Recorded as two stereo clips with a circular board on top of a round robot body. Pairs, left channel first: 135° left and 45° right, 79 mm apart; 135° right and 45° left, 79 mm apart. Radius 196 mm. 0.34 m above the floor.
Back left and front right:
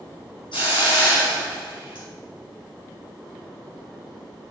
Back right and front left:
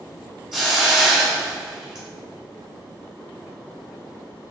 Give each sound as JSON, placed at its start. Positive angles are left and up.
{"t": 0.5, "sound": "a hiss", "azimuth_deg": 130, "distance_m": 3.5}